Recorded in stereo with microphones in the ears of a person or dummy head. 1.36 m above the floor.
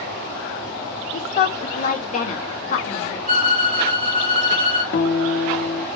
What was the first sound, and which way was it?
A woman speaking, 40° left (ahead or behind).